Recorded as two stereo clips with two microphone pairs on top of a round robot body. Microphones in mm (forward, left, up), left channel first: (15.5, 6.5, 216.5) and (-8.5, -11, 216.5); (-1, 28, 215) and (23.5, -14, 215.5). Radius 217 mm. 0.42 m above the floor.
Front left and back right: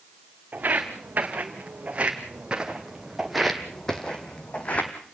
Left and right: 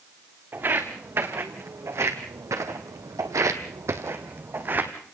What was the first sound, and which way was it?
Footsteps, 110° right.